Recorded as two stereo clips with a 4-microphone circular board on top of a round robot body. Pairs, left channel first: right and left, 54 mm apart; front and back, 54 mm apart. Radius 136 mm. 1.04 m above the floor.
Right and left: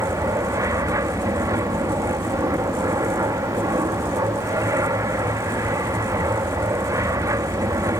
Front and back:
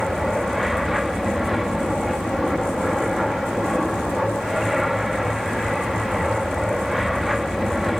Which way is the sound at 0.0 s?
90° left.